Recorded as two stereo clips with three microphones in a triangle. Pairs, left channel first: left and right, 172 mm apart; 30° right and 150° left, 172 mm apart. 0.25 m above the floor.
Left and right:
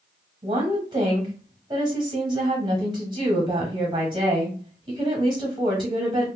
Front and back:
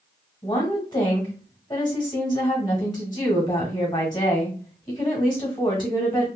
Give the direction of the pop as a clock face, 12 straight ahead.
I don't hear a pop.